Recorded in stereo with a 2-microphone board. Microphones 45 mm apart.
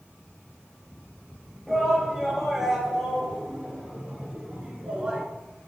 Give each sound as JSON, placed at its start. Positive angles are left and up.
{"t": 1.7, "sound": "a shout", "side_deg": -5, "distance_m": 4.5}